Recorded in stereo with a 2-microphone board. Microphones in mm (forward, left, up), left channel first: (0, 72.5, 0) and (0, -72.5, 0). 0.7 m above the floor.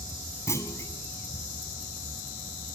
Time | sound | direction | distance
0.5 | a clunk | 20° left (ahead or behind) | 2.5 m